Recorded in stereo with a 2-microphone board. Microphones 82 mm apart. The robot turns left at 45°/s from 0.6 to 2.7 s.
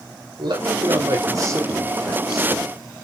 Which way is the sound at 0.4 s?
100° right.